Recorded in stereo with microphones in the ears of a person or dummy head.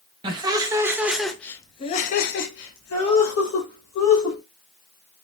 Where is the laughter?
30° right (ahead or behind), 1.1 m; by 4.4 s 80° left, 1.7 m.